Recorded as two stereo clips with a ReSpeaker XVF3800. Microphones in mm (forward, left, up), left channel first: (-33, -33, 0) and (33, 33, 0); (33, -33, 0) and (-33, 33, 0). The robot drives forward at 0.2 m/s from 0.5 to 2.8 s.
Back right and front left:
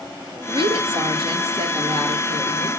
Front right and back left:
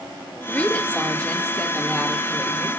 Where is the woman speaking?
35° left, 2.5 m; by 2.7 s 40° left, 2.5 m.